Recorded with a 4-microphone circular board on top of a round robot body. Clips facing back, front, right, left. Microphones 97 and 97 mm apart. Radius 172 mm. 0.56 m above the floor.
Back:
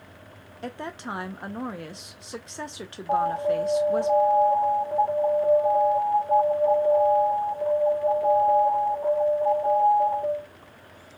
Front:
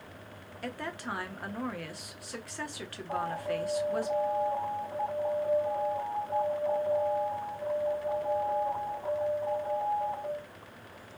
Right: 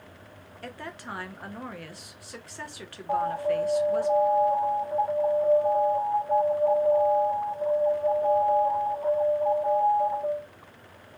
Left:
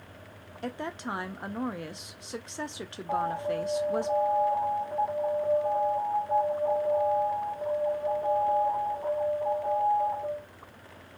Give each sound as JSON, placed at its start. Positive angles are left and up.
{"t": 0.6, "sound": "a woman speaking", "azimuth_deg": 135, "distance_m": 0.7}
{"t": 3.1, "sound": "an alarm", "azimuth_deg": 180, "distance_m": 1.4}